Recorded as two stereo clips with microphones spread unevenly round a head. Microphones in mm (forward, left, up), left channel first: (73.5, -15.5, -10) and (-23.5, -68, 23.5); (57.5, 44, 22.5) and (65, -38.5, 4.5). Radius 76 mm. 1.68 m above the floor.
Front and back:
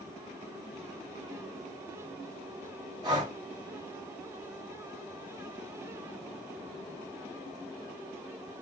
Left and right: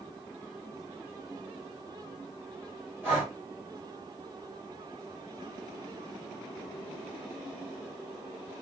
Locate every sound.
3.0 s breathing: 165° right, 0.9 m